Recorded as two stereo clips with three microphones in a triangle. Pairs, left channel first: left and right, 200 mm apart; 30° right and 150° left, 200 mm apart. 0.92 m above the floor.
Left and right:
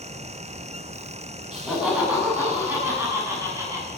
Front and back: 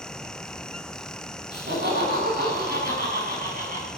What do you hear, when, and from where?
1.5 s laughter: 175° right, 8.5 m; by 3.9 s 165° right, 9 m